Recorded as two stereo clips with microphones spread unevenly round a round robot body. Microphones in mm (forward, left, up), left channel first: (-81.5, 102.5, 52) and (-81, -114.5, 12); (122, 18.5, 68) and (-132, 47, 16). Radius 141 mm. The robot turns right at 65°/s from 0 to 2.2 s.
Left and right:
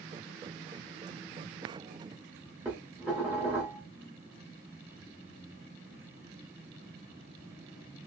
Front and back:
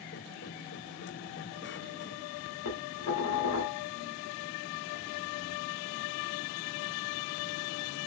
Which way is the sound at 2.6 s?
10° right.